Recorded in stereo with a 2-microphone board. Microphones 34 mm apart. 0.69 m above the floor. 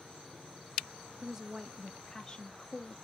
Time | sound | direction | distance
1.2 | a woman speaking | 15° right (ahead or behind) | 0.9 m